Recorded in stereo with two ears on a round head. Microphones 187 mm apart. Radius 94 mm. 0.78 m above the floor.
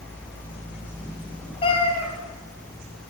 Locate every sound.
1.6 s a cat meowing: 25° left (ahead or behind), 5 m